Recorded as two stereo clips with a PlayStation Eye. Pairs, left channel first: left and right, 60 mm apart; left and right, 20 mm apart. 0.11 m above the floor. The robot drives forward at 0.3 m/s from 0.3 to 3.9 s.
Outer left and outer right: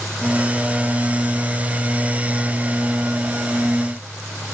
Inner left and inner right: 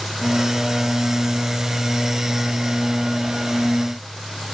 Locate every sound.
Only background noise.